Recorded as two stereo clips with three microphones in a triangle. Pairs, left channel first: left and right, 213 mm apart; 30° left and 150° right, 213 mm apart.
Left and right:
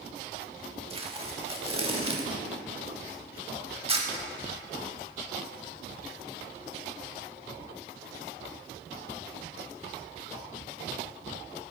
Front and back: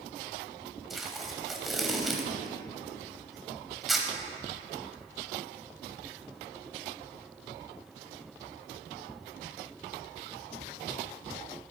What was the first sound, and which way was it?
Tape being pulled, 60° right.